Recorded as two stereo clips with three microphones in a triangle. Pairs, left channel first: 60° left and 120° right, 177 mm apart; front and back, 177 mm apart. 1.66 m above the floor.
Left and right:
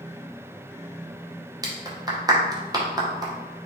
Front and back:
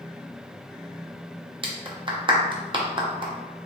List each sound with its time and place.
1.6 s a clap: 160° right, 0.7 m